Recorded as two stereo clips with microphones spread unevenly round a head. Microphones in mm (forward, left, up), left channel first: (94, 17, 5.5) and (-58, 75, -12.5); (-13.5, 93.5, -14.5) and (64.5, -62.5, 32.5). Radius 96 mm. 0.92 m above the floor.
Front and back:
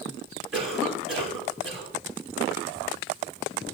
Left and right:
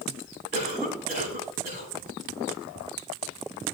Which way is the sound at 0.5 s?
115° right.